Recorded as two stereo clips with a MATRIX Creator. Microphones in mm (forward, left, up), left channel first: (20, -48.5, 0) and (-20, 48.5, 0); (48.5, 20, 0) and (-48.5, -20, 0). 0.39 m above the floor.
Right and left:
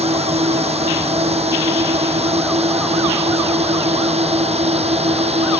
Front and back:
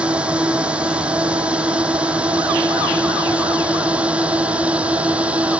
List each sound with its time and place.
0.0 s a drone: 125° left